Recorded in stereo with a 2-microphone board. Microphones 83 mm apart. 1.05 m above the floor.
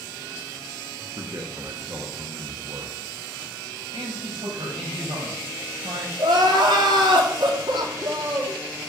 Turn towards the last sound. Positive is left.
turn(degrees=-70)  # may be behind; listen again after turning